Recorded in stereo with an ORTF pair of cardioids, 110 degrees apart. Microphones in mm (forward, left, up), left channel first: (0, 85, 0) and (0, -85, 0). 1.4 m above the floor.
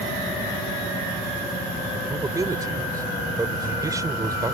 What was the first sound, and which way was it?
A man speaking, 20° right.